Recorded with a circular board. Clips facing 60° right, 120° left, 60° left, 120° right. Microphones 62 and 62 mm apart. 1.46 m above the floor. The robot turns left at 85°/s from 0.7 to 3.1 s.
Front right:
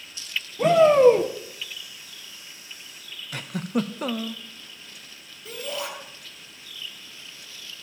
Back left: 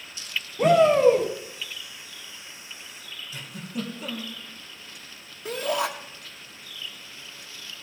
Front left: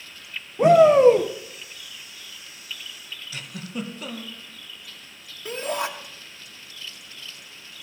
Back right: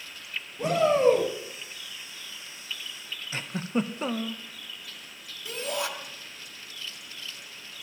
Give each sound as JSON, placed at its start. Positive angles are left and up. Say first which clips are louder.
{"t": 0.6, "sound": "a shout", "louder": "front right 2 dB, front left 9 dB", "azimuth_deg": 35, "distance_m": 0.9}
{"t": 3.3, "sound": "a giggle", "louder": "front right 8 dB, back right 5 dB", "azimuth_deg": -70, "distance_m": 0.6}
{"t": 5.5, "sound": "a shout", "louder": "back left 6 dB, front left 4 dB", "azimuth_deg": 105, "distance_m": 1.4}